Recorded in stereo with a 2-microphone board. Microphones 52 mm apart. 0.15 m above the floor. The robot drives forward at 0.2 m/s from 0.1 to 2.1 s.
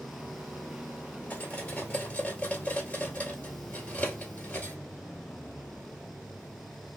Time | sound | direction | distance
1.3 | cutlery clinking | 25° left (ahead or behind) | 1.6 m